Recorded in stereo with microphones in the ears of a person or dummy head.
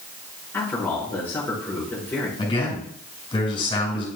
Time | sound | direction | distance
0.5 | a man speaking | 15° left (ahead or behind) | 5.5 m
2.4 | a man speaking | 35° left (ahead or behind) | 6 m